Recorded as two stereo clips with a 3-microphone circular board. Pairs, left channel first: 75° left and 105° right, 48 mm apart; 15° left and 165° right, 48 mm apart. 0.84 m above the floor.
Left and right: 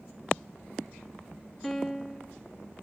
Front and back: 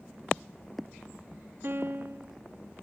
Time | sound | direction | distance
1.6 | a piano | 155° left | 1.2 m